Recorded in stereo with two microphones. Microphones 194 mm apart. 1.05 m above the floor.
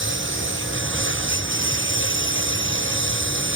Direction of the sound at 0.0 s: 85° right.